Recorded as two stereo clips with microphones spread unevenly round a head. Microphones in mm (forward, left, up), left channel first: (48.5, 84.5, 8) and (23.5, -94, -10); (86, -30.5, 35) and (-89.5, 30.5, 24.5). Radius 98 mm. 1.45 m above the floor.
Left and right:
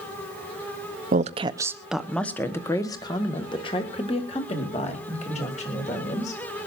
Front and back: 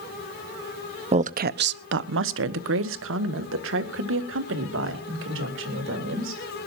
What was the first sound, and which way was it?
A woman speaking, 145° right.